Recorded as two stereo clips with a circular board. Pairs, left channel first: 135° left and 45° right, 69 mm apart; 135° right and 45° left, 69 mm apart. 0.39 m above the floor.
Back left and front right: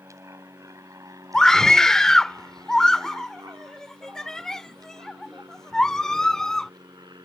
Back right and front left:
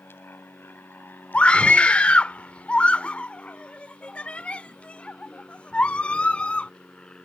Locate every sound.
0.0 s an aircraft: 85° right; by 7.3 s 60° right
1.3 s a scream: 160° right